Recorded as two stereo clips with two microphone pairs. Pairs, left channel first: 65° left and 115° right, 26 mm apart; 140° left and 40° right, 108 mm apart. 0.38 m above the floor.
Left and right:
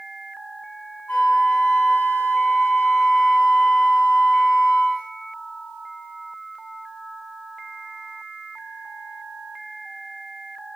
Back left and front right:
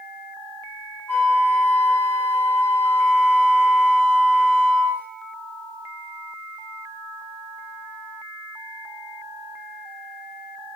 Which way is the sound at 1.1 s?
70° left.